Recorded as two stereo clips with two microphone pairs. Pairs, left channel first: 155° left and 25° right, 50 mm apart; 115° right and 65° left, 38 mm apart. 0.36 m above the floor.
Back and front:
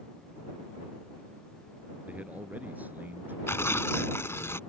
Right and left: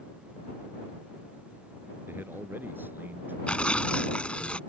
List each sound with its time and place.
2.1 s a man speaking: 40° left; by 3.4 s 30° left
3.5 s tearing paper: 175° right